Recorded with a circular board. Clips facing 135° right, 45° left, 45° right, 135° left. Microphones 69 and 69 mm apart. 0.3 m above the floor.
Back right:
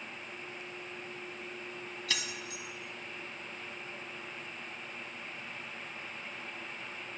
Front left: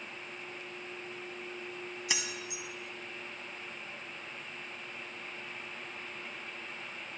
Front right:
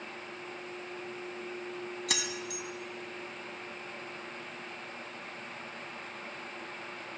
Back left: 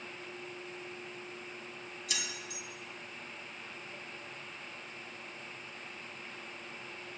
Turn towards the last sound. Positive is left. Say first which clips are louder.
# even, front right 3 dB
turn(degrees=-25)